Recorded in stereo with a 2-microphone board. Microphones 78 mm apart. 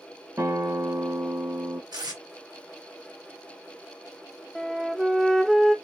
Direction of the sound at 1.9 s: 60° right (ahead or behind).